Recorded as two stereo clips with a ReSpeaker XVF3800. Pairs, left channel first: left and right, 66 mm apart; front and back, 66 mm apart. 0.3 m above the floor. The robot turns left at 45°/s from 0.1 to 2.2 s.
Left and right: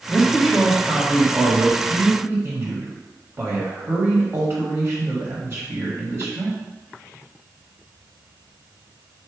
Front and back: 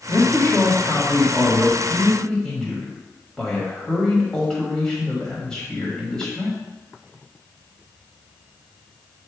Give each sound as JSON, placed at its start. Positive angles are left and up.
{"t": 0.1, "sound": "a man speaking", "azimuth_deg": 20, "distance_m": 1.5}